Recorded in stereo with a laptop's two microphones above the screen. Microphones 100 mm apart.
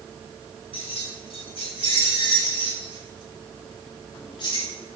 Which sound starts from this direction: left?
Keys jangling, at 0.7 s.